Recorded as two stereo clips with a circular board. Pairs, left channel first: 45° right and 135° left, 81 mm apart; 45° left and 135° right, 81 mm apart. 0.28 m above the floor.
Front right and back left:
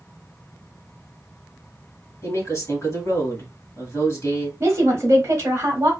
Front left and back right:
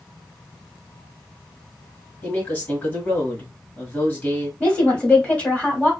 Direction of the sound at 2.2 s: 15° right.